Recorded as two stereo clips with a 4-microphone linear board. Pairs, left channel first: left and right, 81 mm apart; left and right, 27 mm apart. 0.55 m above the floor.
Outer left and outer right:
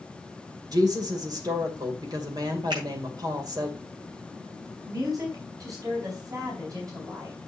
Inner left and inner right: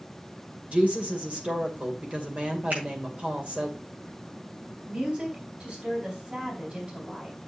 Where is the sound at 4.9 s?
45° right (ahead or behind), 4 m.